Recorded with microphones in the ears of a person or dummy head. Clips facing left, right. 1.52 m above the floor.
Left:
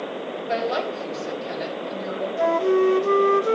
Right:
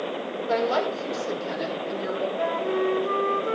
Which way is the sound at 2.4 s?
50° left (ahead or behind).